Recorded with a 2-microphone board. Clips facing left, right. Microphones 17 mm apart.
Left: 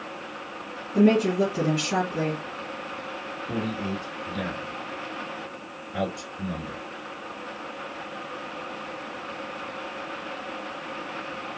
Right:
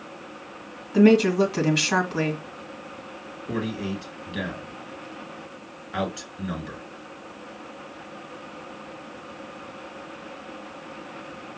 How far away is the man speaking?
About 2.5 m.